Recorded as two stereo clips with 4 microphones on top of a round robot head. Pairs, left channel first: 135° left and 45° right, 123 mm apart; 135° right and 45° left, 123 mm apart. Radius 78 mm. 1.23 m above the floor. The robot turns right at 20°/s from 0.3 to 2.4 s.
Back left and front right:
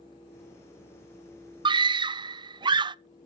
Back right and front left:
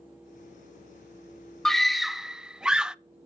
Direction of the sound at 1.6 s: 45° right.